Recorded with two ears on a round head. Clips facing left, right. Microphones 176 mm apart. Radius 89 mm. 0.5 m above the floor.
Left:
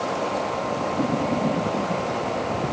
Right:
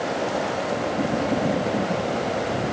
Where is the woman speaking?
No woman speaking in this recording.